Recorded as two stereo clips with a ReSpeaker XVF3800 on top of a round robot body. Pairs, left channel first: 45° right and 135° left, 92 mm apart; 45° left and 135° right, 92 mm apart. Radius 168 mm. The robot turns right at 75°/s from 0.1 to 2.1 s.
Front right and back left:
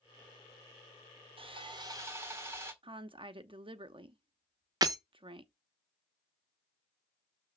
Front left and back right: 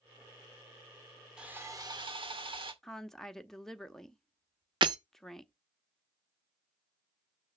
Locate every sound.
1.4 s sawing: 145° left, 2.0 m; by 2.7 s 165° right, 2.0 m
2.8 s a woman speaking: 130° left, 1.1 m
4.8 s breaking glass: 175° right, 0.6 m